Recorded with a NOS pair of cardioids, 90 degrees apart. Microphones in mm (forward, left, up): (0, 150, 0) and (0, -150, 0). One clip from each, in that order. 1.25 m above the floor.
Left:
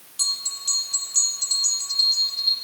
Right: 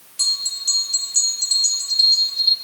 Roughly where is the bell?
Ahead.